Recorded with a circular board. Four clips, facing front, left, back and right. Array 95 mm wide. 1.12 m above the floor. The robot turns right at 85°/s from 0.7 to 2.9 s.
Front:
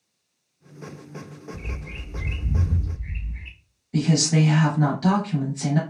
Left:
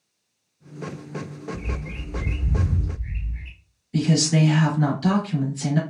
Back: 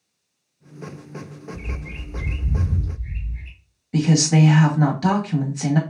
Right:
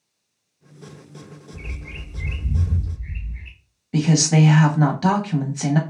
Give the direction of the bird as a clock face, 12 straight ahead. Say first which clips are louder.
Left 6 dB, back 2 dB; 4 o'clock.